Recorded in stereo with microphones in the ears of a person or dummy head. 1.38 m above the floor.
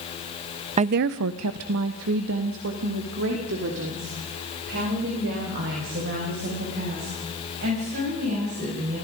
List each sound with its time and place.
0.8 s a woman speaking: 30° right (ahead or behind), 0.5 m; by 8.9 s 60° right (ahead or behind), 9 m